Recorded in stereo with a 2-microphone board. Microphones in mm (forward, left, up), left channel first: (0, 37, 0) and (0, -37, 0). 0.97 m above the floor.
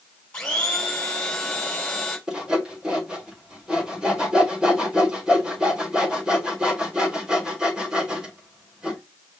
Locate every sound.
0.3 s a blender: 10° left (ahead or behind), 3 m
2.3 s sawing: 10° right (ahead or behind), 3 m